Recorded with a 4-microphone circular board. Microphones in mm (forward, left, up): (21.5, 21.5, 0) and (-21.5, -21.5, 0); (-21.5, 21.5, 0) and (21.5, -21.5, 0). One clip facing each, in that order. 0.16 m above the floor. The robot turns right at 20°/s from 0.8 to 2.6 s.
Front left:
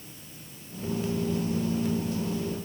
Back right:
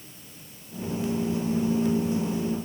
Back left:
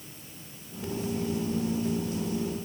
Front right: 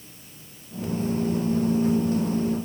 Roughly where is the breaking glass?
No breaking glass in this recording.